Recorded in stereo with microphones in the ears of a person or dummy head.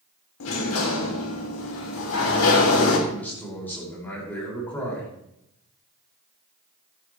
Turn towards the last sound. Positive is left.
turn(degrees=10)  # may be behind; listen again after turning